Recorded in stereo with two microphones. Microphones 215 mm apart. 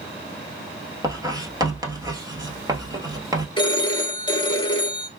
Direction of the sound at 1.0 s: 15° right (ahead or behind).